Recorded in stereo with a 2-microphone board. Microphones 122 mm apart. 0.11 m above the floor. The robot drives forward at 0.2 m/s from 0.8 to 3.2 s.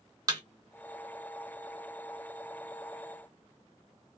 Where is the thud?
30° right (ahead or behind), 1.3 m.